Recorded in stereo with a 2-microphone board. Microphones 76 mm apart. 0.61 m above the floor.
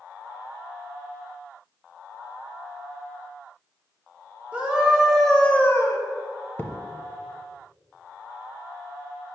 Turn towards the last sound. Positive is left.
turn(degrees=30)  # may be behind; listen again after turning